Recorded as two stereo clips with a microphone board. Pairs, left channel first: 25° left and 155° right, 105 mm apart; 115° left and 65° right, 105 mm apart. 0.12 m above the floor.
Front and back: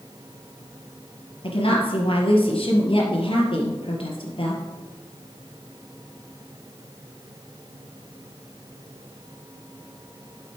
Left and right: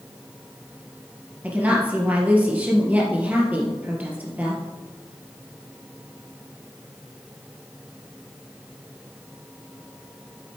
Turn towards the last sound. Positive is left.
turn(degrees=5)